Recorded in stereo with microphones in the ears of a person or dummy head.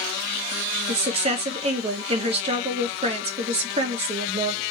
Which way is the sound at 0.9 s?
35° right (ahead or behind).